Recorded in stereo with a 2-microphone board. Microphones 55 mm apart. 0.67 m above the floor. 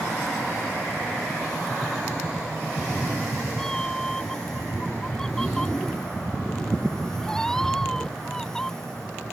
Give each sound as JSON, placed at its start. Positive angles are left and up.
{"t": 2.8, "sound": "a cat meowing", "side_deg": 10}